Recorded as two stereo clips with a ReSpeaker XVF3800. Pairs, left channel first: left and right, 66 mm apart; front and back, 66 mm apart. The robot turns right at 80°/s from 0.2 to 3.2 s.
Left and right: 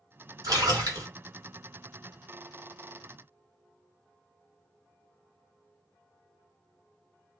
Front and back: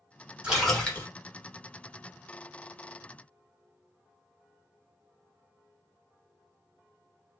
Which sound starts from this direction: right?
A splash, at 0.4 s.